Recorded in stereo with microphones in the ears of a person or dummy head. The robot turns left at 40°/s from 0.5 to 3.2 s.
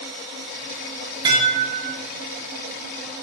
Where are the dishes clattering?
30° right (ahead or behind), 0.7 m; by 2.0 s 55° right (ahead or behind), 0.7 m.